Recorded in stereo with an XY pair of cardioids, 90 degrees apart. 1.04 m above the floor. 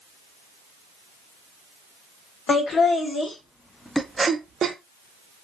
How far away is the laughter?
About 1.5 m.